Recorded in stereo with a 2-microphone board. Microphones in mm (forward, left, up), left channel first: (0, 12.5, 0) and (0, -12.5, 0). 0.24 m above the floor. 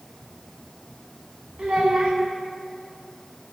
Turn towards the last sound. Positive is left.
turn(degrees=-50)  # may be behind; listen again after turning